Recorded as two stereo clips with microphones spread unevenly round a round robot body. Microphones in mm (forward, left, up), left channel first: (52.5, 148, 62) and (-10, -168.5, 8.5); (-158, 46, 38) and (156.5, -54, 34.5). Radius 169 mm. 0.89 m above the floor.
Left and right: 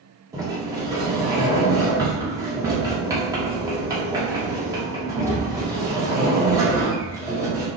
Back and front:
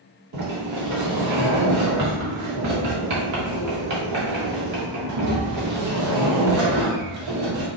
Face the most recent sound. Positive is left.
turn(degrees=-30)